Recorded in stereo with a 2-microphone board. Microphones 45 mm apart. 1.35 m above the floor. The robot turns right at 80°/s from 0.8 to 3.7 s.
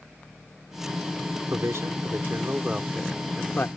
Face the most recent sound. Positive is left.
turn(degrees=55)